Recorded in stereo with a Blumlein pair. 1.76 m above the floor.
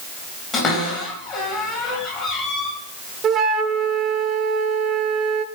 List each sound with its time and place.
0.5 s a cupboard door: 30° left, 3.5 m
3.2 s a flute: 25° right, 0.7 m